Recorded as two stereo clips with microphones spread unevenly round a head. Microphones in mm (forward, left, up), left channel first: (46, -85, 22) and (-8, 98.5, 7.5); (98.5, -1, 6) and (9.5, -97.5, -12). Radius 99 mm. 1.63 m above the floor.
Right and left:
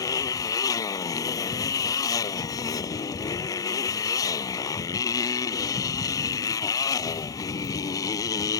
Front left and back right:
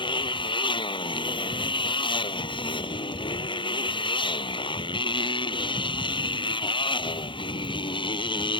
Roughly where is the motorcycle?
Ahead.